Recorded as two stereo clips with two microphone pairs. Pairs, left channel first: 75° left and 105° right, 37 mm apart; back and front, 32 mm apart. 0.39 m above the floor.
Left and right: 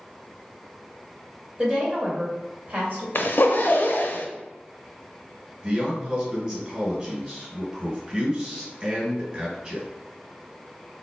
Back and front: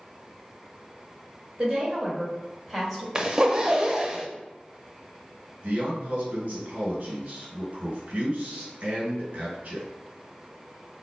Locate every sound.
1.6 s a woman speaking: 55° right, 1.9 m; by 3.0 s 90° right, 1.9 m
3.1 s a zipper: 70° left, 0.5 m
5.6 s a man speaking: 30° right, 1.7 m